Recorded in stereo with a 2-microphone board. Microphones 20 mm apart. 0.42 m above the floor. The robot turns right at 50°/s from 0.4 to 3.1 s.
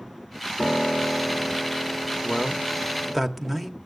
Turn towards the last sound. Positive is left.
turn(degrees=170)